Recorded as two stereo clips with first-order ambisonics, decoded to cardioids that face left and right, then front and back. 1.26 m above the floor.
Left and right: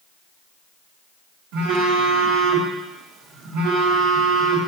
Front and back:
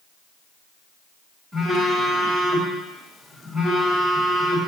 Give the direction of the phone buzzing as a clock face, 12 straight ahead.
3 o'clock.